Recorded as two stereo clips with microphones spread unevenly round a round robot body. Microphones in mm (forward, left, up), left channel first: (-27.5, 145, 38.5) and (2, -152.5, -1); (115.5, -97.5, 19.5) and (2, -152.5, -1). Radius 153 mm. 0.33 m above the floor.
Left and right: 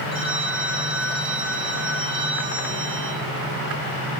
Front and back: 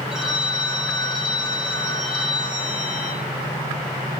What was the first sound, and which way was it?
A phone ringing, 70° right.